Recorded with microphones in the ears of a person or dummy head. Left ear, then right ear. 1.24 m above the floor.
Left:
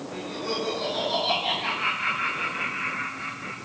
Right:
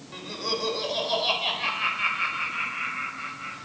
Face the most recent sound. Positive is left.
turn(degrees=-45)  # may be behind; listen again after turning